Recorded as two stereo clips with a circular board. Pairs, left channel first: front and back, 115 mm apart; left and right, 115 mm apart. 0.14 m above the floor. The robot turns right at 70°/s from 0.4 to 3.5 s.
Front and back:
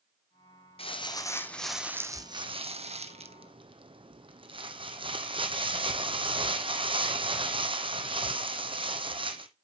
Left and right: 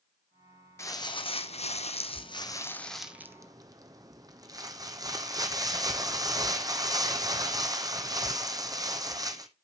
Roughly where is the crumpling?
Ahead left.